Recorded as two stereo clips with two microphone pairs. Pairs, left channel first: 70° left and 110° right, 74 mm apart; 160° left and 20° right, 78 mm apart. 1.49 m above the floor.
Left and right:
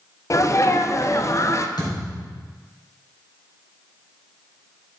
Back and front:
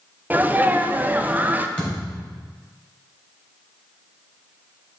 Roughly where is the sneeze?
Ahead left.